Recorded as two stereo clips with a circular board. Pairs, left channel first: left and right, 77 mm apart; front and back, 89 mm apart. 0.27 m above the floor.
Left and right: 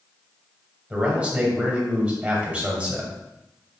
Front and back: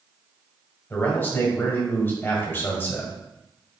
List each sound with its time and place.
0.9 s a man speaking: 35° right, 1.2 m